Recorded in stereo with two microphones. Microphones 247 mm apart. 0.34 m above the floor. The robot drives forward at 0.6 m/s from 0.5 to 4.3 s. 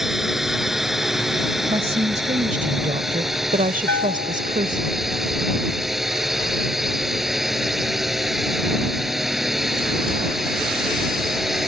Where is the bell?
40° right (ahead or behind).